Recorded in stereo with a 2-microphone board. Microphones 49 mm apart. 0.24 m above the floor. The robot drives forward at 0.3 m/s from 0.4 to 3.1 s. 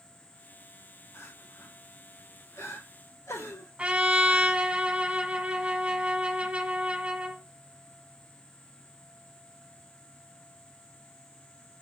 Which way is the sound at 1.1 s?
80° left.